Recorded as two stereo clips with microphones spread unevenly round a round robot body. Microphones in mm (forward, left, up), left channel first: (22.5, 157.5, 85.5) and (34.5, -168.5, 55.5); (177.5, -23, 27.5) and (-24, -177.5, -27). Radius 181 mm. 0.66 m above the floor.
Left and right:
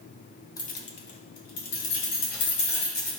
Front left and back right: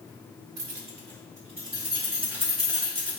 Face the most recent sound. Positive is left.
turn(degrees=110)